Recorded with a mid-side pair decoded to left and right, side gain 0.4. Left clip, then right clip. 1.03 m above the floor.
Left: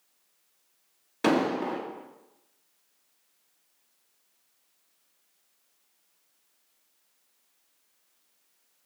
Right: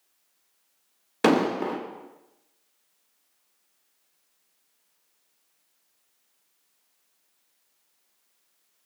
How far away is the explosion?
About 0.7 m.